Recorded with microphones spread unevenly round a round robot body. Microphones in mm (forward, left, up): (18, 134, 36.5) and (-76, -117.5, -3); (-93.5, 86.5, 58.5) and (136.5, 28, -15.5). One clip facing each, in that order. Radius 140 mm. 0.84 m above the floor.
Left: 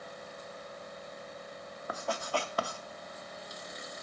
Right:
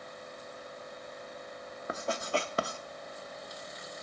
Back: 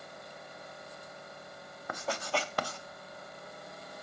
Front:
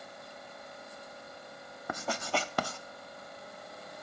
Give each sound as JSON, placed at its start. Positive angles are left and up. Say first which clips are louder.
{"t": 1.9, "sound": "writing", "louder": "right 2 dB, even", "azimuth_deg": -40, "distance_m": 0.5}